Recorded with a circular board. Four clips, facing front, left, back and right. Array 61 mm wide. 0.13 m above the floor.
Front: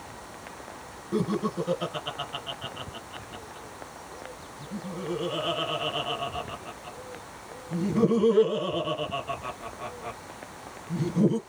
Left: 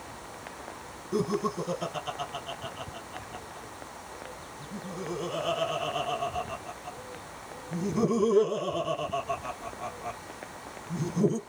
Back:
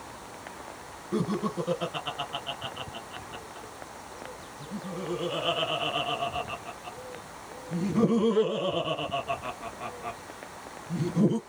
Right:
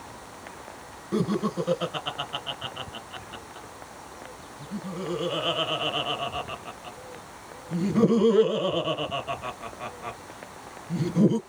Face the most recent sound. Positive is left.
turn(degrees=-90)